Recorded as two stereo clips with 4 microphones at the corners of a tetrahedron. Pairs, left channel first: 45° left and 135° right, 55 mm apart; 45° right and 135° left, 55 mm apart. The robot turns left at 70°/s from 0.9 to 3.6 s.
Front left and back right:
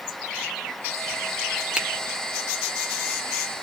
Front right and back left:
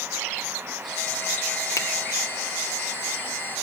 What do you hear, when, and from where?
1.8 s a finger snap: 60° right, 1.0 m; by 1.9 s 70° right, 1.0 m